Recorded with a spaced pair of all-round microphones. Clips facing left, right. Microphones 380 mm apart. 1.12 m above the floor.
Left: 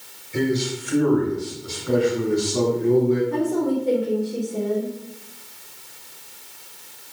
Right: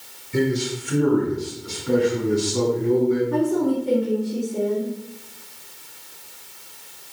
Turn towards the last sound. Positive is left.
turn(degrees=-20)  # may be behind; listen again after turning